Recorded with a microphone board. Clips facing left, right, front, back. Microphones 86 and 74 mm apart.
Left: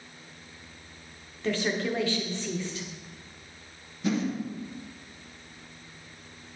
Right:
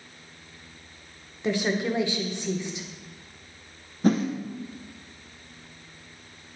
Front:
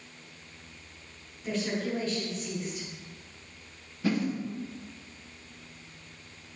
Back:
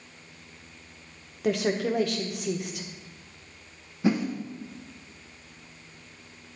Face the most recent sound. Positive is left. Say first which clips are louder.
# right 6 dB, back 3 dB
turn(degrees=-120)